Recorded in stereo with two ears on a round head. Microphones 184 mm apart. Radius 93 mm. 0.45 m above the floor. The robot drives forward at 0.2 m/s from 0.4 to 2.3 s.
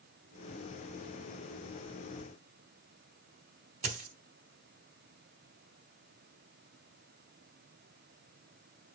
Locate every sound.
3.8 s a dropped coin: 35° right (ahead or behind), 0.8 m